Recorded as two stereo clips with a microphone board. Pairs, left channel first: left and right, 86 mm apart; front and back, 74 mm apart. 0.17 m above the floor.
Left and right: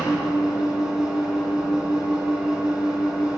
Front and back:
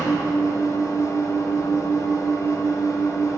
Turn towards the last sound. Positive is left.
turn(degrees=-10)